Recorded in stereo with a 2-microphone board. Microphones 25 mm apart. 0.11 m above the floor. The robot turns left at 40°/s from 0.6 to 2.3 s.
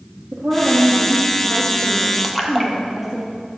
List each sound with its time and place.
0.3 s a woman speaking: 105° right, 4.5 m; by 3.2 s 175° right, 4.5 m
2.2 s a splash: 5° right (ahead or behind), 1.8 m